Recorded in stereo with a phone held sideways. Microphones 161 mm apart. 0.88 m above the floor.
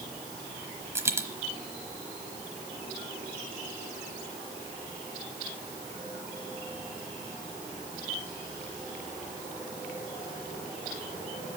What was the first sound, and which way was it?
A dropped coin, 15° right (ahead or behind).